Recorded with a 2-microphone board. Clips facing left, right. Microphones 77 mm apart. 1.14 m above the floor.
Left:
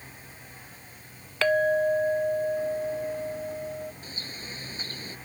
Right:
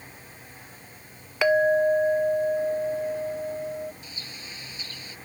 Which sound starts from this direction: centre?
A clink, at 1.4 s.